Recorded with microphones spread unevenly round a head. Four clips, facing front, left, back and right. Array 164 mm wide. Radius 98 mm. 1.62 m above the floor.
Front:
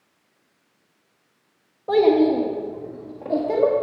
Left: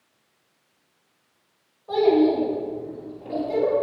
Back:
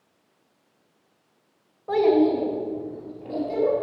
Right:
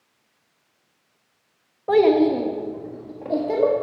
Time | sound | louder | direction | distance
1.9 | a child speaking | right 2 dB, front 2 dB | 70° right | 1.4 m